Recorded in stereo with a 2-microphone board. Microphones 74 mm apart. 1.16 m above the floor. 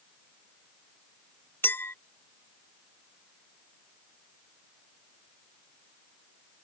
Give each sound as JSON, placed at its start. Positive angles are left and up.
{"t": 1.6, "sound": "a clink", "side_deg": 30}